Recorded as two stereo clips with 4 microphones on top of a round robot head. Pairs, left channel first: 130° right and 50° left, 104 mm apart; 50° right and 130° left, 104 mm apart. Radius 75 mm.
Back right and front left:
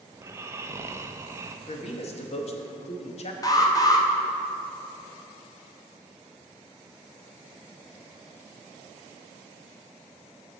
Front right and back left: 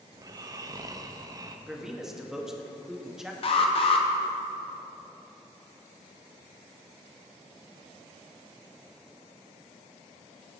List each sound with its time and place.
0.1 s snoring: 100° left, 0.5 m
1.7 s a man speaking: 145° right, 0.9 m
3.4 s an alarm: 75° right, 0.8 m